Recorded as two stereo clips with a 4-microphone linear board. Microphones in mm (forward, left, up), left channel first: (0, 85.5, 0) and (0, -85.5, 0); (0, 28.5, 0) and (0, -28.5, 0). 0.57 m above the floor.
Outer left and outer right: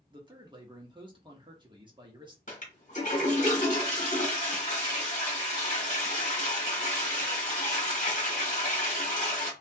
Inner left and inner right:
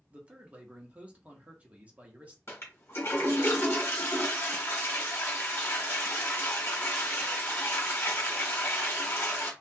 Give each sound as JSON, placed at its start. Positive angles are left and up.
{"t": 0.1, "sound": "a man speaking", "side_deg": -25, "distance_m": 0.9}
{"t": 2.5, "sound": "a toilet flushing", "side_deg": 45, "distance_m": 1.2}